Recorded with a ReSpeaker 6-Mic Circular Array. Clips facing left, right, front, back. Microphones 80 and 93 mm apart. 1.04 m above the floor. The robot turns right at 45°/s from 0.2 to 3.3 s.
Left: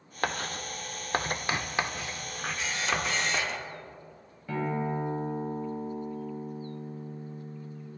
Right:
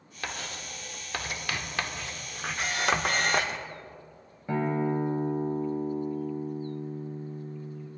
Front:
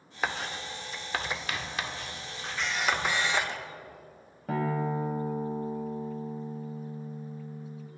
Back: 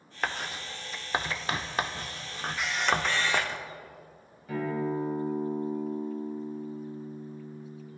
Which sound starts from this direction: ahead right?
A guitar, at 4.5 s.